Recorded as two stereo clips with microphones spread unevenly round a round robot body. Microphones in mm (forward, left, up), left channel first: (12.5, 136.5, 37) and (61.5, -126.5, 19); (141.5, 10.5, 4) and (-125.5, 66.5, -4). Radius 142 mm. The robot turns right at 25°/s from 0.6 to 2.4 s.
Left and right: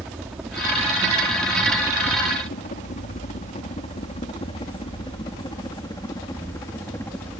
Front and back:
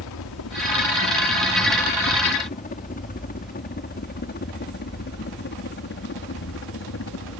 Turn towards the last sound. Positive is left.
turn(degrees=20)